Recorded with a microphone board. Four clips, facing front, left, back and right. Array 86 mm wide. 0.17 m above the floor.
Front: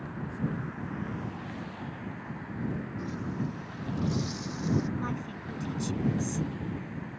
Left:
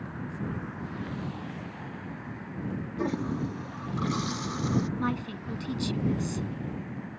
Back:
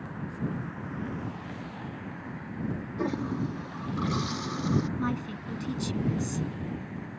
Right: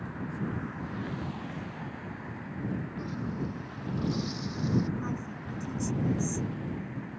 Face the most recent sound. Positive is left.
turn(degrees=110)